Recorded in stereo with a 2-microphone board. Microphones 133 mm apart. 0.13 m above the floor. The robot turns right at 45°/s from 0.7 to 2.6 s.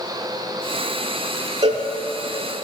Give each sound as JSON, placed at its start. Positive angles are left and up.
{"t": 1.6, "sound": "a cowbell", "side_deg": -45, "distance_m": 0.5}